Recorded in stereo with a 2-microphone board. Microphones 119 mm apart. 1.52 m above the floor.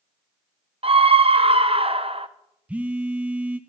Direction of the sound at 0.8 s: 50° right (ahead or behind).